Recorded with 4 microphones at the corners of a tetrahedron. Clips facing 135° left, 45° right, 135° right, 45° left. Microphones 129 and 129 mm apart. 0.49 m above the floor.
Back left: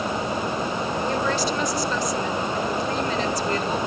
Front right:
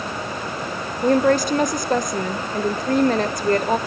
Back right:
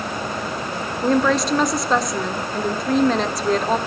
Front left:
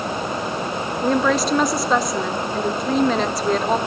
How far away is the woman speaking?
About 1.1 m.